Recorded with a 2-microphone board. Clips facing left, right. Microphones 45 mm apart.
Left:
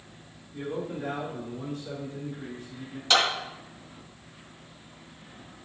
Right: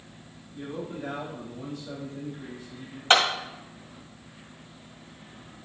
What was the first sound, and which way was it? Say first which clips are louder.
A man speaking: left 3 dB; 80° left.